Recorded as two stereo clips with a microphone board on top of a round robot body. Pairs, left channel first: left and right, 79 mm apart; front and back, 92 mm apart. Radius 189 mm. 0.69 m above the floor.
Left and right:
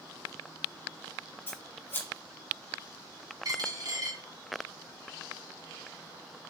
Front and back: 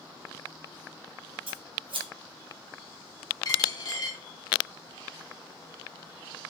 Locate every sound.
1.5 s scissors: 155° left, 1.8 m
3.5 s a dropped coin: 50° right, 2.5 m